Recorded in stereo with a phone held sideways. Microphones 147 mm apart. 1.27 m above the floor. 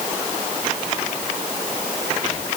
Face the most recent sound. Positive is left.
No sound to turn to.